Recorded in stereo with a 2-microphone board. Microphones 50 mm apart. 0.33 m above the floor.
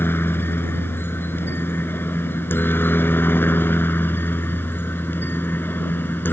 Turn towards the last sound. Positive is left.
turn(degrees=45)  # may be behind; listen again after turning